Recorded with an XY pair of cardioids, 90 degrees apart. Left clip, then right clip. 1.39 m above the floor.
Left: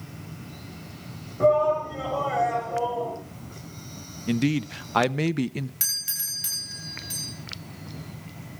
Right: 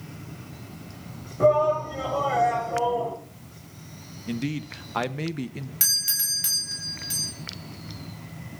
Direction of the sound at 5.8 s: 30° right.